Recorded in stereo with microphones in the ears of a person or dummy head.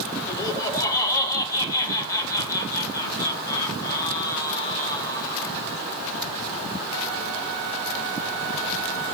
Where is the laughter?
10° left (ahead or behind), 4 m.